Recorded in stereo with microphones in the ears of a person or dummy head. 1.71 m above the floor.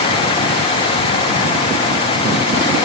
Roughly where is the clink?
I don't hear a clink.